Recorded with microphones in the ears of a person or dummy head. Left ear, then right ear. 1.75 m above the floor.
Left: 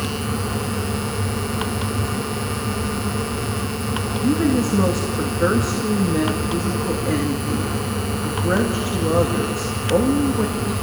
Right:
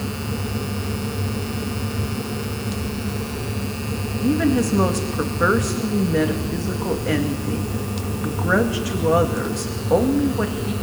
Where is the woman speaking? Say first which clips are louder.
Right 1 dB; 40° right (ahead or behind), 2.5 m.